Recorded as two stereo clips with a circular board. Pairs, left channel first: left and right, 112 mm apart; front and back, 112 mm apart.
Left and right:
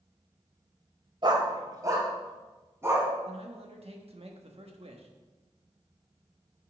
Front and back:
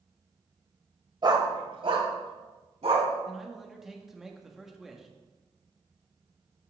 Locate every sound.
1.2 s a dog barking: 135° right, 1.1 m; by 3.1 s 160° right, 2.5 m
3.2 s a man speaking: 95° right, 1.3 m